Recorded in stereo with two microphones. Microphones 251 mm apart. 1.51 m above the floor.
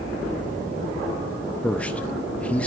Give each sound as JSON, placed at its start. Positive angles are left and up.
{"t": 1.6, "sound": "a man speaking", "side_deg": 5, "distance_m": 0.6}